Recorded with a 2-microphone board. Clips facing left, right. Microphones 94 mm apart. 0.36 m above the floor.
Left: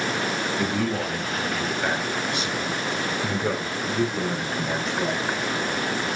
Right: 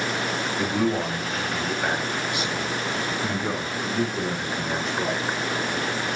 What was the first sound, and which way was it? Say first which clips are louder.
A man speaking: right 4 dB; 20° right (ahead or behind).